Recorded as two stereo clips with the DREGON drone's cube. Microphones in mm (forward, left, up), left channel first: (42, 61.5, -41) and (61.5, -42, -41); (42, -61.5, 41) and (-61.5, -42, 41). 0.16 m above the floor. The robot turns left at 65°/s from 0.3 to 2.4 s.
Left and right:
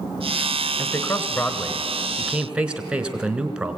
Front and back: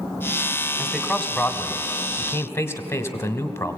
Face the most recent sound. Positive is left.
turn(degrees=-15)